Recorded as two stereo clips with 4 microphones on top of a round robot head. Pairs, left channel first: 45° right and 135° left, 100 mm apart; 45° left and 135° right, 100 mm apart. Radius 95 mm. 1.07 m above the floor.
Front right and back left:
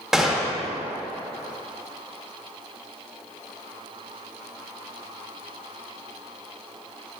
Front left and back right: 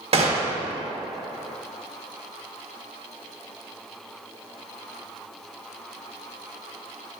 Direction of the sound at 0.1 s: 140° right.